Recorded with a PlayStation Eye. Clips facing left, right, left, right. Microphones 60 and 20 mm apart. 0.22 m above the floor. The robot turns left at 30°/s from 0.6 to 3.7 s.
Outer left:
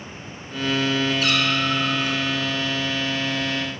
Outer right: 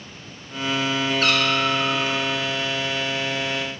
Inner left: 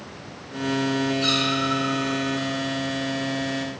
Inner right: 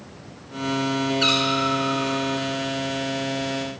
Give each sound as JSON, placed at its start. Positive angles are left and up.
{"t": 1.2, "sound": "a cat meowing", "side_deg": -50, "distance_m": 1.4}